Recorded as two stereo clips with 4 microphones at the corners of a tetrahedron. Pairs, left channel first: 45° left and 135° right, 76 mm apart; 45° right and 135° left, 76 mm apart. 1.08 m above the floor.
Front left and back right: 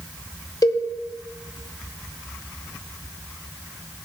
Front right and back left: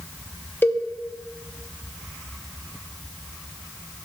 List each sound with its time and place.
0.6 s a cowbell: 15° left, 0.9 m